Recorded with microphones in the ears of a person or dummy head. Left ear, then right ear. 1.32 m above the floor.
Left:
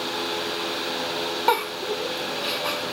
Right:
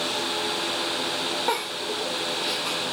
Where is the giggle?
30° left (ahead or behind), 1.1 m.